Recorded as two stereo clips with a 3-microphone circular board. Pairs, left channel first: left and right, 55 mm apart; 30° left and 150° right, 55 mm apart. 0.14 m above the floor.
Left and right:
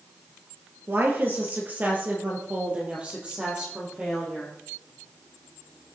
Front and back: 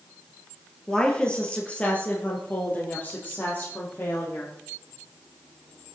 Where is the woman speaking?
40° right, 2.5 m; by 4.5 s 15° right, 4.5 m.